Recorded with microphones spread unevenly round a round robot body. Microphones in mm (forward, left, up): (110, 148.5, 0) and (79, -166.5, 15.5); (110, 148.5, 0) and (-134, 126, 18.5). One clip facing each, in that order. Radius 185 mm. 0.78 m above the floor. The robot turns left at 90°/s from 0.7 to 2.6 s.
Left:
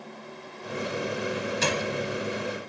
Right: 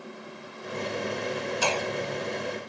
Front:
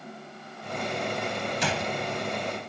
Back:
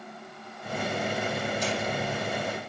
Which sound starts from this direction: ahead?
A gunshot, at 1.6 s.